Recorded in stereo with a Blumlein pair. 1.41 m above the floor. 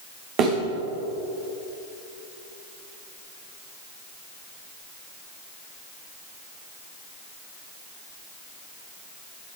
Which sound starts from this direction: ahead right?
A thud, at 0.4 s.